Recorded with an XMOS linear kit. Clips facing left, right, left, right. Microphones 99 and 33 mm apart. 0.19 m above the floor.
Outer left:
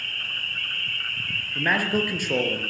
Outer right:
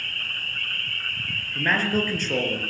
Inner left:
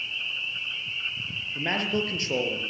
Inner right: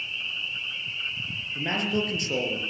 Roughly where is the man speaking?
Centre.